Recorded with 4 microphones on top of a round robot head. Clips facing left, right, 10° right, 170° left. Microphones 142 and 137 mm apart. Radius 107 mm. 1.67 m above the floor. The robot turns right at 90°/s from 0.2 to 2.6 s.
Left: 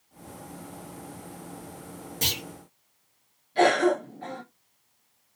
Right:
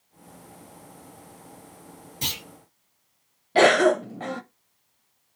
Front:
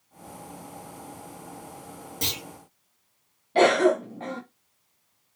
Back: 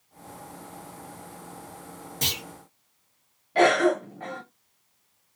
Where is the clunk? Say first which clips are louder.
Left 2 dB, even; 70° left, 1.6 m; by 2.4 s 90° left, 1.6 m.